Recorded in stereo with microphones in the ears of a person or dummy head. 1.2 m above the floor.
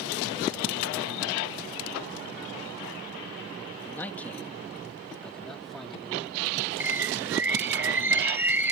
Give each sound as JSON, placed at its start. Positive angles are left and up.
{"t": 3.8, "sound": "a man speaking", "side_deg": 10}
{"t": 6.8, "sound": "a bird", "side_deg": -10}